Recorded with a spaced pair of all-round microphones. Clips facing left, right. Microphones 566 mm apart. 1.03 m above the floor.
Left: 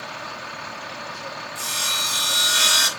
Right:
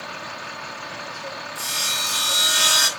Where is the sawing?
10° left (ahead or behind), 5.5 m.